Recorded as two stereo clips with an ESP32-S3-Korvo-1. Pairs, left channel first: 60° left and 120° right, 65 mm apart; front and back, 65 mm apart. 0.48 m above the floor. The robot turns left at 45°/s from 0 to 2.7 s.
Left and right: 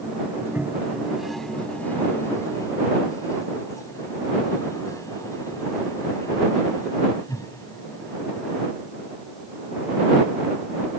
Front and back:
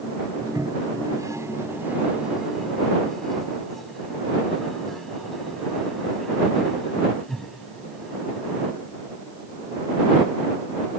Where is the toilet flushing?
170° right; by 8.7 s 85° left.